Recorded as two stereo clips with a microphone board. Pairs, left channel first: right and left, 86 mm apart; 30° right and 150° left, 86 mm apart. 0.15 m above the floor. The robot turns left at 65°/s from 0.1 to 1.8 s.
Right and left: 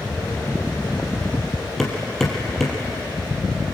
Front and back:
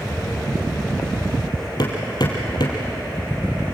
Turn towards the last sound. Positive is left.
turn(degrees=-5)